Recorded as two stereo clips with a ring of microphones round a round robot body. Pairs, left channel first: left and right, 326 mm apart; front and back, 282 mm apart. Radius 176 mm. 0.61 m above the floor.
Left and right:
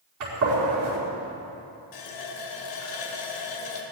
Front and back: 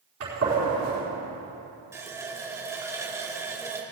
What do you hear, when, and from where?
0.2 s a gunshot: 130° right, 4.5 m
1.9 s a running tap: 100° left, 2 m